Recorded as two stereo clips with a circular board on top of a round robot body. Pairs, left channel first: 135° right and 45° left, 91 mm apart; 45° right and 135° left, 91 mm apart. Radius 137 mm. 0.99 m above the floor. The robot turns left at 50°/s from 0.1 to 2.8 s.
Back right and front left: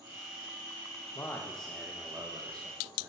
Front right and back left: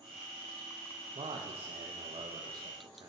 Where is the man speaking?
165° left, 0.8 m; by 3.1 s 80° left, 0.8 m.